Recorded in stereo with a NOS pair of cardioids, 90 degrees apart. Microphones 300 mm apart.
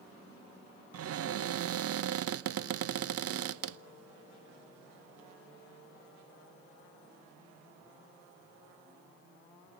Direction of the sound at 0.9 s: 55° right.